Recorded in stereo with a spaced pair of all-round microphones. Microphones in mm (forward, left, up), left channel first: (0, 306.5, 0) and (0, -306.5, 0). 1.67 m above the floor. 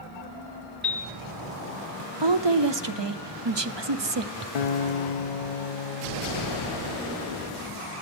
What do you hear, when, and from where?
0.8 s a piano: 35° right (ahead or behind), 1.9 m
2.2 s a woman speaking: 45° right (ahead or behind), 0.7 m
4.5 s a guitar: 80° left, 0.6 m